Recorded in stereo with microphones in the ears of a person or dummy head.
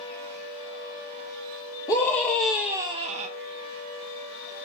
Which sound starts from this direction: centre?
A scream, at 1.9 s.